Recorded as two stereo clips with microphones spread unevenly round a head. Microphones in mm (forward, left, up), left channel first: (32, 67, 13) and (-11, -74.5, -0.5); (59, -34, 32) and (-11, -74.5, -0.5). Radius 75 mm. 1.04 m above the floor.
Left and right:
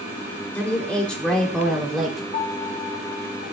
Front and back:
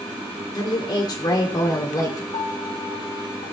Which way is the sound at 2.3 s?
30° left.